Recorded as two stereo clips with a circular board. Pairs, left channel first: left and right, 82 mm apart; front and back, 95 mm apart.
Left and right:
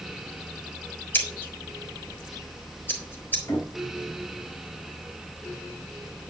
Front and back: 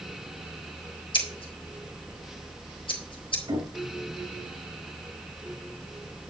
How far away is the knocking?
About 5 m.